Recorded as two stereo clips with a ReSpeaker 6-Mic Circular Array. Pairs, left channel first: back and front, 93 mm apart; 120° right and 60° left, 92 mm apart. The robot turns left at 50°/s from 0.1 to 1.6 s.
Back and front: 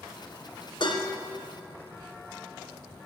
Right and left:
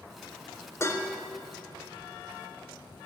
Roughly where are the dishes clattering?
Behind.